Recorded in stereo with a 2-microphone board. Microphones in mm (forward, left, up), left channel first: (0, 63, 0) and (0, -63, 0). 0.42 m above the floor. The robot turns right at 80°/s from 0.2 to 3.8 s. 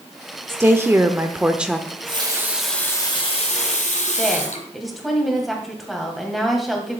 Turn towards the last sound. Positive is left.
turn(degrees=0)  # may be behind; listen again after turning